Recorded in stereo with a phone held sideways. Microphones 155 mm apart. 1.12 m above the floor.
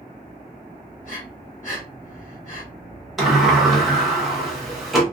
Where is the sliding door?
Centre (ahead or behind), 0.9 m.